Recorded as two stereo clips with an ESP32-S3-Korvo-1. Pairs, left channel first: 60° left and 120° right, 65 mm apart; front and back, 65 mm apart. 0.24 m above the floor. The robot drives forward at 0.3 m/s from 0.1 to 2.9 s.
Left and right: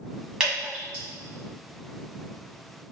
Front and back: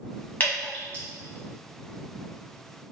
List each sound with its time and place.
0.4 s dripping: 45° right, 1.4 m; by 1.0 s 55° right, 1.3 m